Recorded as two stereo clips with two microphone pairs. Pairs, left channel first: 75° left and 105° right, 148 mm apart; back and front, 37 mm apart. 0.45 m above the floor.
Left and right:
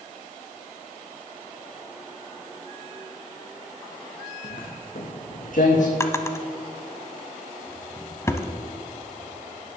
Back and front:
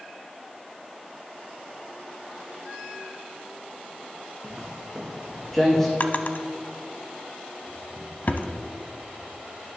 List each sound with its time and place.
4.4 s footsteps: 80° left, 1.9 m; by 5.9 s 105° left, 1.5 m
6.0 s a drawer: 145° left, 0.7 m